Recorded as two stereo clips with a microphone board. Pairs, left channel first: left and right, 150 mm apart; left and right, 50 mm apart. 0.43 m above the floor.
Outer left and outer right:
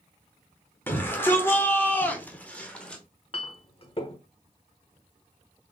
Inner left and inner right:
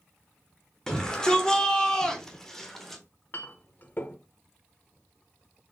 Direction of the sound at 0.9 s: 15° left (ahead or behind).